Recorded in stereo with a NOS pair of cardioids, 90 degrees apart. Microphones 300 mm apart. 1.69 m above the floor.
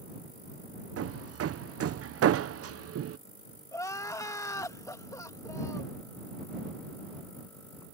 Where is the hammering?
50° right.